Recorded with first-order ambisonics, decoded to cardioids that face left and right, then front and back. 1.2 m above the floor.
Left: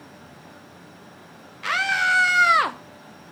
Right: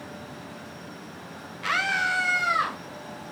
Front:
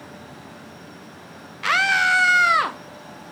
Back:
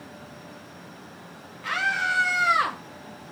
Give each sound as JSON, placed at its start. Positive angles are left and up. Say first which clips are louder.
{"t": 1.6, "sound": "a scream", "louder": "left 3 dB, front 7 dB", "azimuth_deg": 5, "distance_m": 0.7}